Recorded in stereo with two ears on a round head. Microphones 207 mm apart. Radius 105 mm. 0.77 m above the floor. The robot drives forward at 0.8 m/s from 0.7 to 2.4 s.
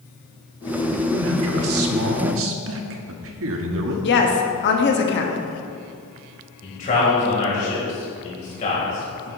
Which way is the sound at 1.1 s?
50° right (ahead or behind).